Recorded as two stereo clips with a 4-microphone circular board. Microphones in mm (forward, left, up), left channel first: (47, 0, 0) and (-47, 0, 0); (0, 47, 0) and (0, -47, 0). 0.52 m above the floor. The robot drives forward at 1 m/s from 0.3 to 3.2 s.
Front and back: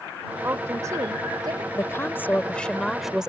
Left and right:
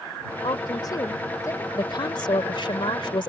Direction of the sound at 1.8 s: 55° left.